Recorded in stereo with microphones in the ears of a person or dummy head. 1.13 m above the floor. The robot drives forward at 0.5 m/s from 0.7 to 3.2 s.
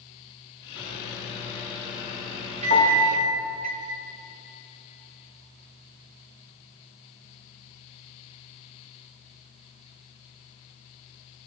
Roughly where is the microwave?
Centre.